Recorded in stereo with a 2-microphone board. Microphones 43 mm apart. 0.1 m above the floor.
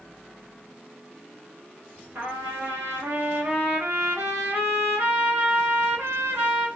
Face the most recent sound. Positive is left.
turn(degrees=-75)  # may be behind; listen again after turning